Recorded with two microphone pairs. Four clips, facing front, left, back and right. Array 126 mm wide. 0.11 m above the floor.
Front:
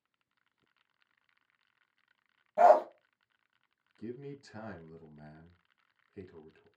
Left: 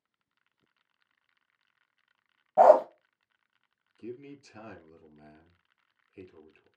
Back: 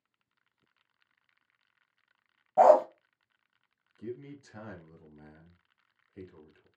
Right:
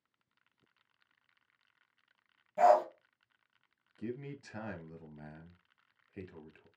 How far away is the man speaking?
About 2 m.